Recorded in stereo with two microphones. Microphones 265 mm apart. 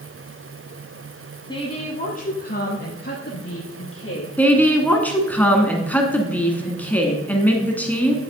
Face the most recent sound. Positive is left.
turn(degrees=5)  # may be behind; listen again after turning